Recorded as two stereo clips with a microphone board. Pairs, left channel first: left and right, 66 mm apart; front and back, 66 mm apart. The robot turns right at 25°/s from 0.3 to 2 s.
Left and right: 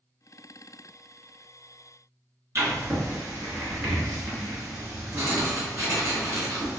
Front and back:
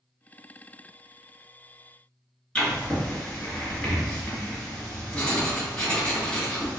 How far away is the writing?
About 2.0 m.